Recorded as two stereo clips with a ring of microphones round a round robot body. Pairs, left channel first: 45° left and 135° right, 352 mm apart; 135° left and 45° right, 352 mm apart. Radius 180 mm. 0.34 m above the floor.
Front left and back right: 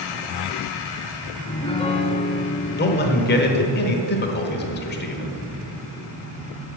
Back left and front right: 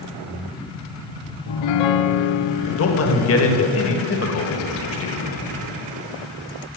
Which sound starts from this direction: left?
A man speaking, at 2.8 s.